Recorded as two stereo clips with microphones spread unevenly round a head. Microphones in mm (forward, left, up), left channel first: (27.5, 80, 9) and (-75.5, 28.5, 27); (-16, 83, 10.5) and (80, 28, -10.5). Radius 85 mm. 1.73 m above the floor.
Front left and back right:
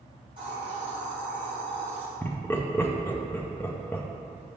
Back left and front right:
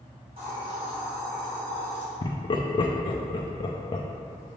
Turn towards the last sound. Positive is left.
turn(degrees=100)